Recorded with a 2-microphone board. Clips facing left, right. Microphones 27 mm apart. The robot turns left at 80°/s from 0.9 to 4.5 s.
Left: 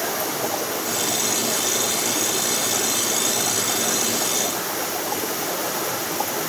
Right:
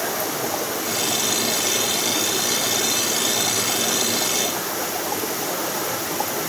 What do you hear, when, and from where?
Only background noise.